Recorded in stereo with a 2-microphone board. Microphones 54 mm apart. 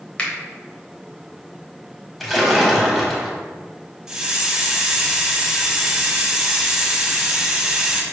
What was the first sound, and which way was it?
A finger snap, 25° left (ahead or behind).